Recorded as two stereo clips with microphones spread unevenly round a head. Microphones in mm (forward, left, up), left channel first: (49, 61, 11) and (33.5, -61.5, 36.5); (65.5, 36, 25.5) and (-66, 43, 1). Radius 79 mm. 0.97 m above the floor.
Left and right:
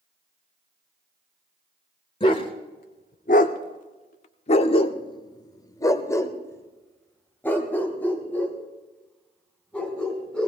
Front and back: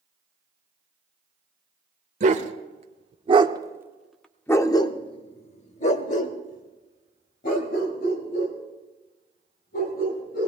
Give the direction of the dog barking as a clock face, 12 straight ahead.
7 o'clock.